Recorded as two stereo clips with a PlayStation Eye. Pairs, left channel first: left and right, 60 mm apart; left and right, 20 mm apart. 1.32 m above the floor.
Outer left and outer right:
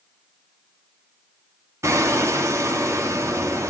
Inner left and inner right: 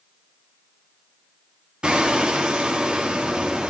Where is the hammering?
55° right (ahead or behind), 2.5 m.